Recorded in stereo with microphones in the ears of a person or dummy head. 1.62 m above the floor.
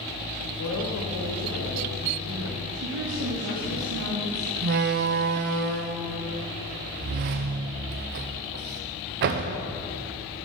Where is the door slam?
45° right (ahead or behind), 0.6 m.